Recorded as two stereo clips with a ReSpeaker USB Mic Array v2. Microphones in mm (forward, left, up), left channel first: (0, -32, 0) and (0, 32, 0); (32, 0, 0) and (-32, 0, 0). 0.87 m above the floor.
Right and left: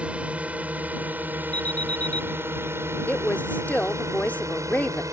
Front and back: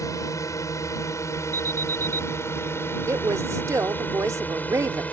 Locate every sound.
0.0 s a drone: 20° left; by 5.1 s 65° left
1.5 s an alarm: 155° right
3.1 s a woman speaking: 150° right